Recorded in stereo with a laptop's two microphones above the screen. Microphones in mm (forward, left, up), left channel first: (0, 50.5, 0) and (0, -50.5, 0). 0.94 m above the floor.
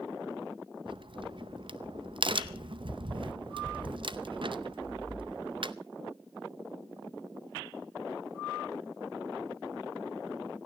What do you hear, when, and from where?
0.9 s a crack: 55° right (ahead or behind), 0.6 m